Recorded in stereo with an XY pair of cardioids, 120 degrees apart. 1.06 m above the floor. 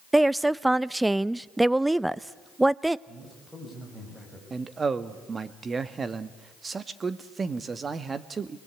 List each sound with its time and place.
0.1 s a woman speaking: 10° right, 0.5 m
3.1 s a man speaking: 5° right, 6.5 m
4.5 s a man speaking: 30° right, 1.6 m